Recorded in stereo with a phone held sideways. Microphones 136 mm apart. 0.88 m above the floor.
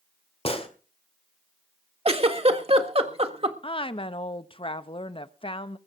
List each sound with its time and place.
0.5 s a gunshot: 45° left (ahead or behind), 1.8 m
2.0 s a giggle: 45° right (ahead or behind), 1.5 m
3.6 s a woman speaking: 40° left (ahead or behind), 0.8 m